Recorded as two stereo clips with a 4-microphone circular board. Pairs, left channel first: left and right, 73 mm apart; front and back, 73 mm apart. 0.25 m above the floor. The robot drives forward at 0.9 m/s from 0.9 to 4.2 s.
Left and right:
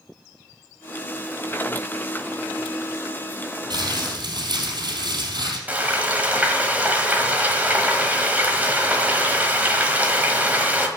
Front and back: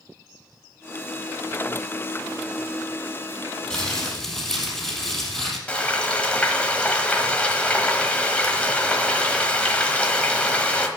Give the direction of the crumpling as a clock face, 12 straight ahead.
3 o'clock.